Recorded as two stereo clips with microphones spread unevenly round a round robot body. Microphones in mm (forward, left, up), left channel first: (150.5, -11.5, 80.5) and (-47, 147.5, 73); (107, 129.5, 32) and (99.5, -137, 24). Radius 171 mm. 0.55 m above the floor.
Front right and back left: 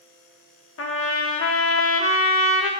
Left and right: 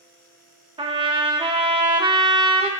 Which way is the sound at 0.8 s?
25° right.